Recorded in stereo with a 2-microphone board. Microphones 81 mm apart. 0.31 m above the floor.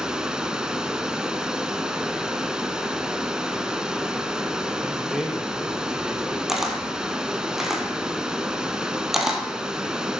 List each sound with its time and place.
0.0 s running water: 10° right (ahead or behind), 0.7 m
4.8 s a man speaking: 5° right (ahead or behind), 1.2 m
6.5 s a camera shutter: 5° right (ahead or behind), 1.5 m